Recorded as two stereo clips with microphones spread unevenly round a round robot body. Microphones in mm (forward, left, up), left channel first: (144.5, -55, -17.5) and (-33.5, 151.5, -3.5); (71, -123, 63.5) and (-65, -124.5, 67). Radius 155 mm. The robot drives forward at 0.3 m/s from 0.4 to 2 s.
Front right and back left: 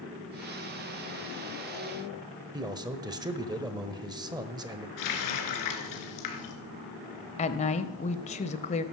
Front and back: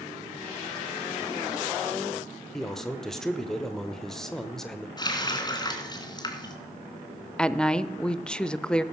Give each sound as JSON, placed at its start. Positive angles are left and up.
{"t": 2.5, "sound": "a man speaking", "azimuth_deg": 75, "distance_m": 1.2}
{"t": 5.0, "sound": "a running tap", "azimuth_deg": -60, "distance_m": 3.0}
{"t": 7.4, "sound": "a woman speaking", "azimuth_deg": -75, "distance_m": 0.9}